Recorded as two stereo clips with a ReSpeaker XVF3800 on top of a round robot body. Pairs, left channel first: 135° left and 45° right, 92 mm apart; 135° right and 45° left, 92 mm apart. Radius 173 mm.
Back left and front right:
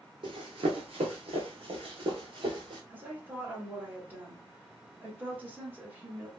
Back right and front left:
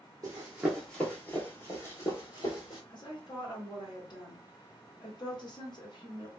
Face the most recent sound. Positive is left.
turn(degrees=-110)